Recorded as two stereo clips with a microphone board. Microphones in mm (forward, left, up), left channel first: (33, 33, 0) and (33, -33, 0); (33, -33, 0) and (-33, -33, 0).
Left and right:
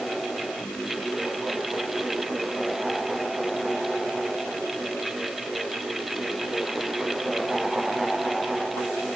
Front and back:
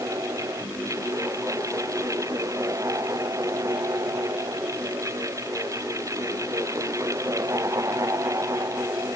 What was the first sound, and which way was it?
Only background noise.